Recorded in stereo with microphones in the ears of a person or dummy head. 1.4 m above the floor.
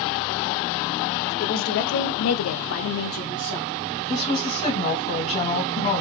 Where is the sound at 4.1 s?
25° left (ahead or behind), 1.9 m.